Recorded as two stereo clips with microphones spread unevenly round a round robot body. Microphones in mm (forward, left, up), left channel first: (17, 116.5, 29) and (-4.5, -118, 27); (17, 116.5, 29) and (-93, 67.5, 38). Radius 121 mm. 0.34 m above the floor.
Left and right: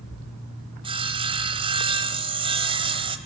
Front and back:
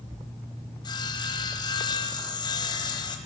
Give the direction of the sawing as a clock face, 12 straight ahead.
1 o'clock.